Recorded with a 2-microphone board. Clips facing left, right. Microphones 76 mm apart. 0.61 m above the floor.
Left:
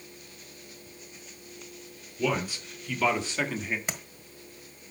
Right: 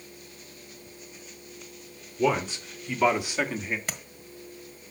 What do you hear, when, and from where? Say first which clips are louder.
2.2 s a man speaking: right 4 dB; 25° right (ahead or behind), 2.0 m; by 3.8 s centre (ahead or behind), 1.4 m
3.9 s tapping: left 1 dB; 15° left (ahead or behind), 1.5 m